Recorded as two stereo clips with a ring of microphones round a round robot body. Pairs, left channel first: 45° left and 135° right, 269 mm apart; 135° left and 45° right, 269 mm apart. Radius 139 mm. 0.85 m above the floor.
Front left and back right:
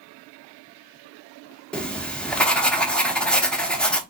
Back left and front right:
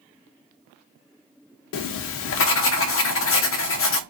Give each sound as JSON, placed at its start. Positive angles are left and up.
{"t": 1.7, "sound": "writing", "azimuth_deg": 130, "distance_m": 0.6}